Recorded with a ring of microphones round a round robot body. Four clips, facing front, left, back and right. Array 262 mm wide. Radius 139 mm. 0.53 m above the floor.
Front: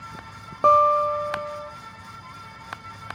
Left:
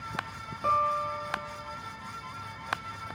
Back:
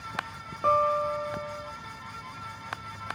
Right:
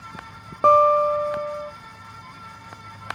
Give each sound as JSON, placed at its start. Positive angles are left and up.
{"t": 0.6, "sound": "a guitar", "azimuth_deg": -55, "distance_m": 1.0}